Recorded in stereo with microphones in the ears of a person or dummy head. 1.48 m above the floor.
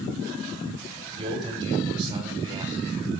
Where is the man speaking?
25° right (ahead or behind), 6 m; by 3.1 s 20° right (ahead or behind), 7 m.